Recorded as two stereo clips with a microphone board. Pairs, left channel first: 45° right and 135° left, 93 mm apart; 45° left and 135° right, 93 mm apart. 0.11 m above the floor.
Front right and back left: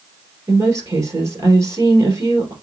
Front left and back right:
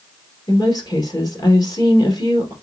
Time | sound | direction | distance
0.5 | a woman speaking | 85° left | 2 m